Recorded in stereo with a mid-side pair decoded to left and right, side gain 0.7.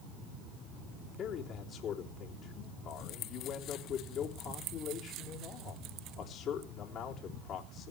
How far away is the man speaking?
About 3.5 m.